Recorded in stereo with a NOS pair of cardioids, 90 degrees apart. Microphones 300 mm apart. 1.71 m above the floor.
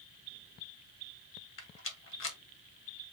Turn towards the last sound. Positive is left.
turn(degrees=45)